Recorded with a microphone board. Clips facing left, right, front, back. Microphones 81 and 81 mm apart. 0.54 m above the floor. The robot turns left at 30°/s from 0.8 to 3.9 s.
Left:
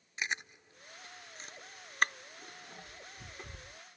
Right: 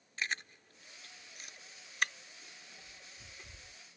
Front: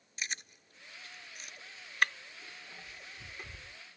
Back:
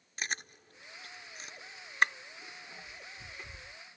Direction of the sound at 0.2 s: 155° left.